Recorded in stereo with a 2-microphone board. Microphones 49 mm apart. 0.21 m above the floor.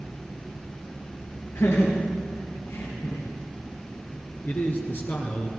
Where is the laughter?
70° left (ahead or behind), 4 m; by 3.2 s 65° left (ahead or behind), 5 m.